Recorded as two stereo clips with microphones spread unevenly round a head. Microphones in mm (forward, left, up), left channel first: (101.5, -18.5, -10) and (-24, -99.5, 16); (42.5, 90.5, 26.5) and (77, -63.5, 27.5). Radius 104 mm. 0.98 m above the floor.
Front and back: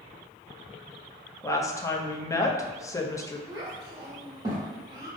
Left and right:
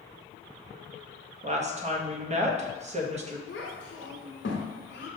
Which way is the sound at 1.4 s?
30° right.